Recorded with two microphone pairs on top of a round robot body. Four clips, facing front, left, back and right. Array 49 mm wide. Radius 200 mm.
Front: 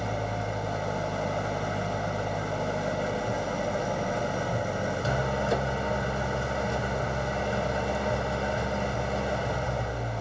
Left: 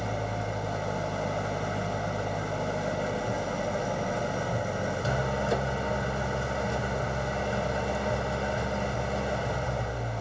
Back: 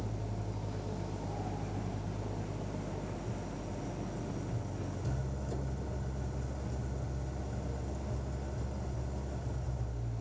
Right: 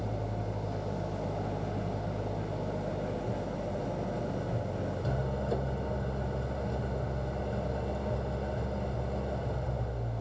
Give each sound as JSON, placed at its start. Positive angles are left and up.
{"t": 0.0, "sound": "an engine running", "azimuth_deg": 40}